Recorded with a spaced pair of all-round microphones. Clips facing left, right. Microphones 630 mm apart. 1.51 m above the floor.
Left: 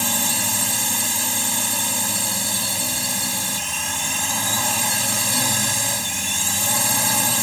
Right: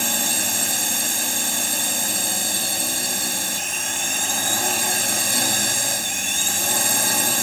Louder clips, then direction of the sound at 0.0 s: Left 1 dB; 30° left (ahead or behind).